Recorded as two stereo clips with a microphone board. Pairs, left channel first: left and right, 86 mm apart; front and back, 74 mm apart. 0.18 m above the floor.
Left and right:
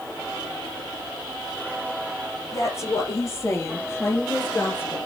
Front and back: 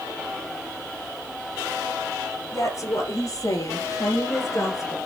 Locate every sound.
2.5 s a woman speaking: 45° left, 4 m; by 5.0 s 30° left, 2.5 m